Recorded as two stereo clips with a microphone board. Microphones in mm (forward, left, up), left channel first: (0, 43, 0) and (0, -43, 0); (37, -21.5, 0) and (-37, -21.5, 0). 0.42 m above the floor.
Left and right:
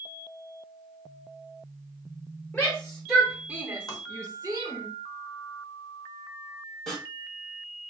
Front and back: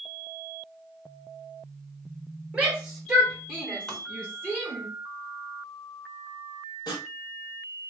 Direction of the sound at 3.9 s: 75° left.